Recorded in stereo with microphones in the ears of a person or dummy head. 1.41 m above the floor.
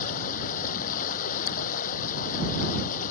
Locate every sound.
0.0 s running water: 40° left (ahead or behind)